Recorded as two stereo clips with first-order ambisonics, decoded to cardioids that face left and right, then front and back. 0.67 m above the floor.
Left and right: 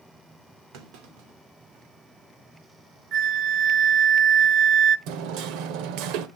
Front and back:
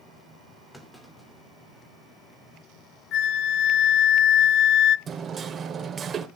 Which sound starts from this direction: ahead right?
A flute, at 3.1 s.